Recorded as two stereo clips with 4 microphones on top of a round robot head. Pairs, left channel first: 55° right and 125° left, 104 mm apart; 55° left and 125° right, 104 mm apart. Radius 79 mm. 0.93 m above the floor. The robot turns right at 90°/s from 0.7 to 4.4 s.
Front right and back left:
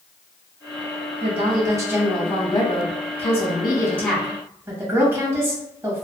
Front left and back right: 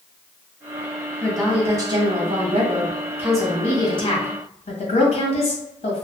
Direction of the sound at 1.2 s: 130° left.